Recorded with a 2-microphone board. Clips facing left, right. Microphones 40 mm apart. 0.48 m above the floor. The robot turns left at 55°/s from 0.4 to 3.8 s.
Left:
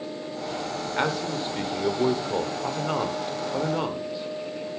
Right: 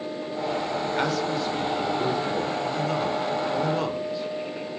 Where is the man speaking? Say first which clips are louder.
Left 1 dB; 10° left (ahead or behind), 1.8 m.